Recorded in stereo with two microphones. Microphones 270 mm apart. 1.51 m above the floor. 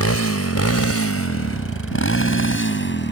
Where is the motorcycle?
75° left (ahead or behind); by 3.1 s 50° left (ahead or behind).